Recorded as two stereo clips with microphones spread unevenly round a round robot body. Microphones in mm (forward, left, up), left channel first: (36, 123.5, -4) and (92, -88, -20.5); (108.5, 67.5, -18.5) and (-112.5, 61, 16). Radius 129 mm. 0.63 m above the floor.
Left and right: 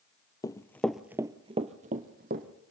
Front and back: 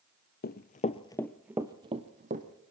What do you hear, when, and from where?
0.4 s running footsteps: 40° left, 0.8 m; by 2.5 s 130° right, 1.2 m